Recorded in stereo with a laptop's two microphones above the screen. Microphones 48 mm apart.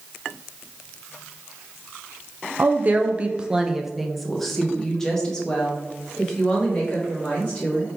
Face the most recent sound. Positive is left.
turn(degrees=20)  # may be behind; listen again after turning